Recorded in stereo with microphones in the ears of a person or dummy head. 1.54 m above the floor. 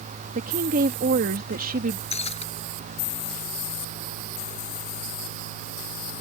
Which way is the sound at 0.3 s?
40° right (ahead or behind).